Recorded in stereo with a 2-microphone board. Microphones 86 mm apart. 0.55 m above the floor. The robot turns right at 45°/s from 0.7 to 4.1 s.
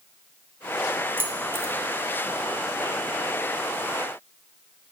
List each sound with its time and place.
1.2 s keys jangling: 25° right (ahead or behind), 0.6 m; by 1.7 s 35° right (ahead or behind), 0.6 m